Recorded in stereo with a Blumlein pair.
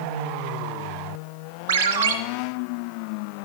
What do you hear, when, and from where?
1.7 s a ringtone: 55° right, 1.1 m